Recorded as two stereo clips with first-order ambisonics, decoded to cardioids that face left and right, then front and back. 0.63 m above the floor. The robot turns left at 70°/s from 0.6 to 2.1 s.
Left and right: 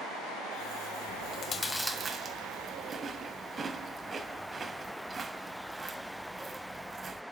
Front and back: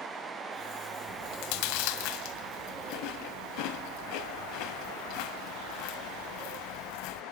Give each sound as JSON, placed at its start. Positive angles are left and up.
{"t": 1.1, "sound": "chewing", "azimuth_deg": 50, "distance_m": 1.2}